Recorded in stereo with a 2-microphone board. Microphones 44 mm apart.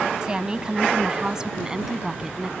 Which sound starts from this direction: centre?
A woman speaking, at 0.2 s.